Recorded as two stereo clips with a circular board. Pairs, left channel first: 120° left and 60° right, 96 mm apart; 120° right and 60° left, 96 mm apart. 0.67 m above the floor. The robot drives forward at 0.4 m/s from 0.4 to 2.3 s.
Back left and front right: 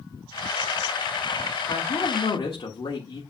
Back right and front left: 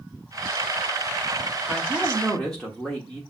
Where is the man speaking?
150° left, 1.2 m; by 3.2 s 155° left, 1.4 m.